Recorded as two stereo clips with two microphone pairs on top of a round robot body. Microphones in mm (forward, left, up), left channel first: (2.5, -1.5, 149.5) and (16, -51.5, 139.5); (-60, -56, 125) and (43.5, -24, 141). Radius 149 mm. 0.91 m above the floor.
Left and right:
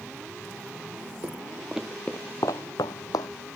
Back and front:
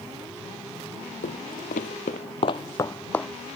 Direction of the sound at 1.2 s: 140° right.